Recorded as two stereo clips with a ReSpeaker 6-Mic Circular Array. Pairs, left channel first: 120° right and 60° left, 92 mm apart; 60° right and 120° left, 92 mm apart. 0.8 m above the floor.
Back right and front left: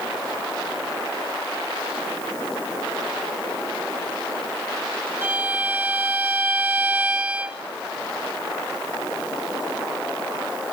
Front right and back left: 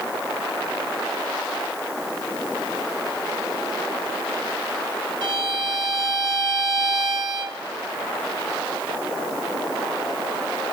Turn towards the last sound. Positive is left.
turn(degrees=120)